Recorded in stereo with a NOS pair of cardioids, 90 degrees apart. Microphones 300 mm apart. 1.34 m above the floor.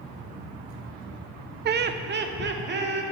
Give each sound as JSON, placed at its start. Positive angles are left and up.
{"t": 1.6, "sound": "laughter", "azimuth_deg": -35, "distance_m": 0.5}